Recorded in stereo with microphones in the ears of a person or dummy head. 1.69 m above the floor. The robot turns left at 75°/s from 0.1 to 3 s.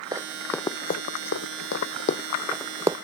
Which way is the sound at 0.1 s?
25° right (ahead or behind).